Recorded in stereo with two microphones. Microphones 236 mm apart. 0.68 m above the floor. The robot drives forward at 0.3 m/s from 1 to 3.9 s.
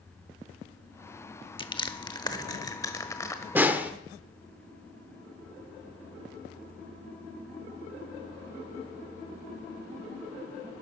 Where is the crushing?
20° left (ahead or behind), 0.8 m; by 3.5 s 10° left (ahead or behind), 1.3 m.